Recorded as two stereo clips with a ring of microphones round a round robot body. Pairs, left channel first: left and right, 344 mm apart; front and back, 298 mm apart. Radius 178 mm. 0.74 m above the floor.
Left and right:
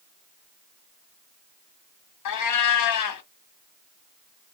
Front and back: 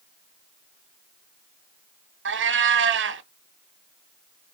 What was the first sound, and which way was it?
A cat meowing, 130° left.